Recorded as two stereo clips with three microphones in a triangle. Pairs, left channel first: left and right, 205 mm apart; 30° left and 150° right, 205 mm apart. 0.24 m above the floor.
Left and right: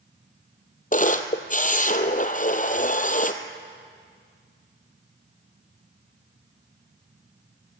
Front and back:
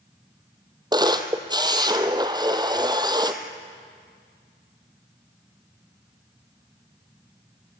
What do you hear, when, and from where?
0.9 s a camera shutter: 140° left, 1.5 m